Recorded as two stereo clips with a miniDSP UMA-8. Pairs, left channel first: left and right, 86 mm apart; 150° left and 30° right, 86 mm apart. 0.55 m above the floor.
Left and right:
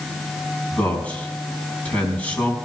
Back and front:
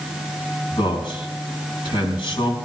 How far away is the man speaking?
About 5 m.